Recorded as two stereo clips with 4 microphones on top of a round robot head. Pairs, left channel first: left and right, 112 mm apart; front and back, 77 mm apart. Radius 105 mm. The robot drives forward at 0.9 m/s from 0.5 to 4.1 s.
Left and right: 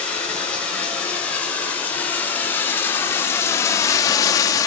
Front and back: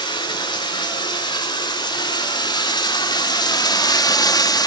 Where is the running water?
10° left, 4.5 m; by 4.7 s 30° left, 1.5 m.